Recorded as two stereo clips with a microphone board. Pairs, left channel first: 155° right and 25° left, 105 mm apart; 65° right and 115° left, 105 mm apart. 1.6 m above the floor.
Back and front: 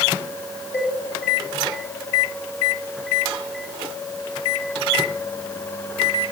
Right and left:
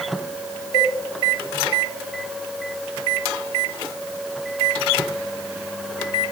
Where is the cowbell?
95° right, 8.5 m.